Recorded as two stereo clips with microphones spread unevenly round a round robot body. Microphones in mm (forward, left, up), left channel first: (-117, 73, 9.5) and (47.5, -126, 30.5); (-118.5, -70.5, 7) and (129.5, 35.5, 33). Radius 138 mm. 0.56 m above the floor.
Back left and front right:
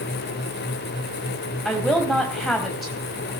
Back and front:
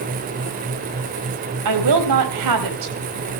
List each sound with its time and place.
1.6 s a woman speaking: 40° left, 4 m